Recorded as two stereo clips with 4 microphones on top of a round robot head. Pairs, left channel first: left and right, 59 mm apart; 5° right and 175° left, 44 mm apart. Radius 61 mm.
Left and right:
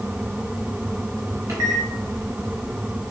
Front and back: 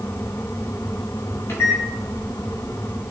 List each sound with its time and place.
1.5 s a microwave: 45° right, 0.9 m